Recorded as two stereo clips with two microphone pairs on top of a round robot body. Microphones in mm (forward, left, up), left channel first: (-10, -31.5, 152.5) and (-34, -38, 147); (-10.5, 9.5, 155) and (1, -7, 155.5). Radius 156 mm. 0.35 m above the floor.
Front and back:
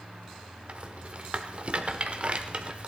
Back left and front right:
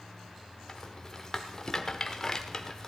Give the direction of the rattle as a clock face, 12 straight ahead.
6 o'clock.